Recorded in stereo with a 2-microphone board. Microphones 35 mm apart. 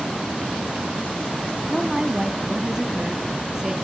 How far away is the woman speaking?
About 2.0 m.